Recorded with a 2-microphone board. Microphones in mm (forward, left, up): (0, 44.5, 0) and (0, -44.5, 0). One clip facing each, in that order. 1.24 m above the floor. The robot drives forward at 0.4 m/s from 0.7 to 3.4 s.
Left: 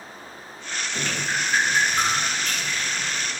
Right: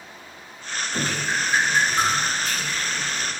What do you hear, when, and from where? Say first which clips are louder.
0.9 s dripping: right 2 dB; 15° right (ahead or behind), 0.9 m; by 3.3 s 5° right (ahead or behind), 1.8 m